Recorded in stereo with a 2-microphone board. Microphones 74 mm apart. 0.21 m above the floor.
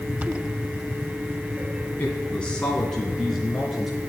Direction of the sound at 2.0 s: 25° left (ahead or behind).